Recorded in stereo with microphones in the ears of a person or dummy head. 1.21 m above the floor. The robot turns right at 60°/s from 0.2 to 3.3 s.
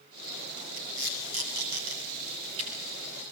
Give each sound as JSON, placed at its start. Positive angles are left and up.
{"t": 0.8, "sound": "tape being pulled", "side_deg": -40, "distance_m": 8.5}